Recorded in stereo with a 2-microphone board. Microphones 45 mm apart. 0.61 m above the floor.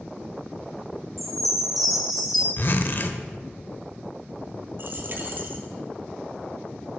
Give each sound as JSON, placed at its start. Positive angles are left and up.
{"t": 1.2, "sound": "a chime", "side_deg": 0, "distance_m": 1.5}
{"t": 2.6, "sound": "a zipper", "side_deg": 50, "distance_m": 0.5}
{"t": 4.8, "sound": "a dropped coin", "side_deg": -50, "distance_m": 0.9}